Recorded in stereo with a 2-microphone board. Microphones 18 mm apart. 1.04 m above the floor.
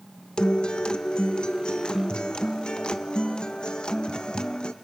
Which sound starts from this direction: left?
A guitar, at 0.4 s.